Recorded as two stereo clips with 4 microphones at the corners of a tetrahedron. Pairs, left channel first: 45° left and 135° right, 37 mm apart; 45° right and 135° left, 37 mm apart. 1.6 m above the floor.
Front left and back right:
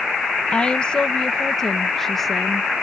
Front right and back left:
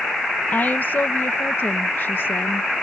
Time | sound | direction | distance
0.5 | a woman speaking | 15° right | ?